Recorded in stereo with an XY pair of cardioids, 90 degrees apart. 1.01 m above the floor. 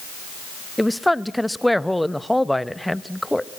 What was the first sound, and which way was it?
A woman speaking, 5° left.